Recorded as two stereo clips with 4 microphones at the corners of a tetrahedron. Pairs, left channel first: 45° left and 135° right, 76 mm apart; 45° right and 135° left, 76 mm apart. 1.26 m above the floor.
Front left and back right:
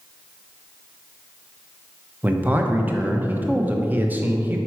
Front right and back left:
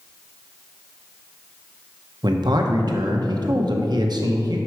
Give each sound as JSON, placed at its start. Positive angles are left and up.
{"t": 2.2, "sound": "a man speaking", "azimuth_deg": 160, "distance_m": 0.8}